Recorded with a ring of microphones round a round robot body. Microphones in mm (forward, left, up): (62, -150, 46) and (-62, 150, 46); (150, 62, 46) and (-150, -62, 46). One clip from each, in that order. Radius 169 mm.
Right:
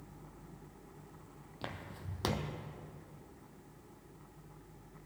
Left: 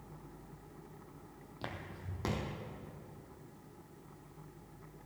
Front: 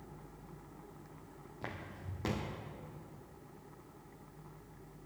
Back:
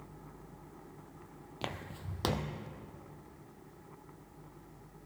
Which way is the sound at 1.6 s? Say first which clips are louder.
Even, back 4 dB; 150° right.